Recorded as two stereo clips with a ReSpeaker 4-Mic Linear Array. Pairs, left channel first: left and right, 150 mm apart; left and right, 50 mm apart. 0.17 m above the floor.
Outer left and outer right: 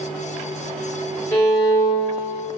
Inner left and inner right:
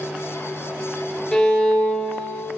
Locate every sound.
1.3 s a violin: 15° left (ahead or behind), 1.9 m